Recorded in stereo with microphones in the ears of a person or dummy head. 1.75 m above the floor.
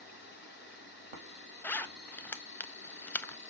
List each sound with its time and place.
0.0 s an insect: 60° left (ahead or behind), 6.5 m
1.6 s a zipper: 10° left (ahead or behind), 0.7 m